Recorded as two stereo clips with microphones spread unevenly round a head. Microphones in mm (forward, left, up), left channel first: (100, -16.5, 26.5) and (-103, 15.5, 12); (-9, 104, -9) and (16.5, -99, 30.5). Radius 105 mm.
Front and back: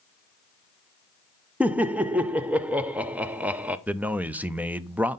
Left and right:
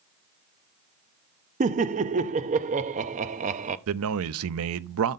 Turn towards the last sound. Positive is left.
turn(degrees=-105)